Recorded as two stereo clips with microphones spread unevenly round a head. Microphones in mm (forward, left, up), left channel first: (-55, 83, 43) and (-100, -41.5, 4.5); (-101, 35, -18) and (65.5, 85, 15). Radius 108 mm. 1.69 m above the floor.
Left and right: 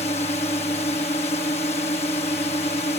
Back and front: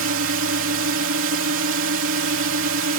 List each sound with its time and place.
0.0 s a drone: 5° left